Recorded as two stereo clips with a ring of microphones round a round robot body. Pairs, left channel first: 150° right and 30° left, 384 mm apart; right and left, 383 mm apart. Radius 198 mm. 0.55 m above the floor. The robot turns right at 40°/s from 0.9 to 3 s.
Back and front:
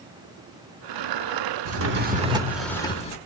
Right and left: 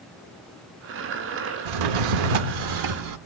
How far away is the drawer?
About 0.9 m.